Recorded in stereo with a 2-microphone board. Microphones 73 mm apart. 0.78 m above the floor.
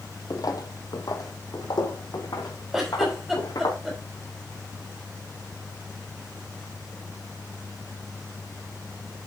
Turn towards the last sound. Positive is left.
turn(degrees=-5)  # may be behind; listen again after turning